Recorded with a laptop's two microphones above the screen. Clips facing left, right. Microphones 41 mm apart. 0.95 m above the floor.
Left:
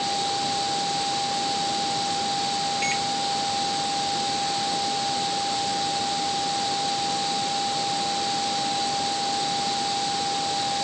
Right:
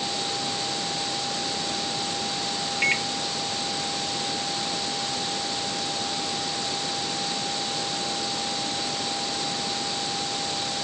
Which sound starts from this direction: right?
A microwave, at 2.8 s.